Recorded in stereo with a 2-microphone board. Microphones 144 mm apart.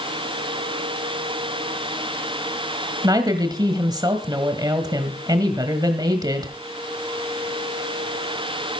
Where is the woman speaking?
25° right (ahead or behind), 1.6 m.